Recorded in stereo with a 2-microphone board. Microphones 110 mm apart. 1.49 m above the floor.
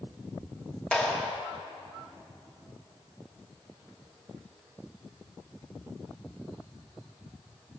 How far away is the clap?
About 1.8 m.